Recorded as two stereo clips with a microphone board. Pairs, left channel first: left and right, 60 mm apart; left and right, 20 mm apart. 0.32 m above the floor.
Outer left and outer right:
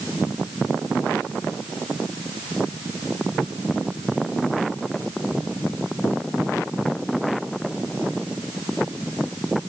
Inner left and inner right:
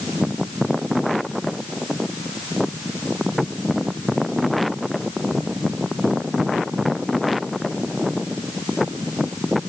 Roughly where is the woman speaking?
No woman speaking in this recording.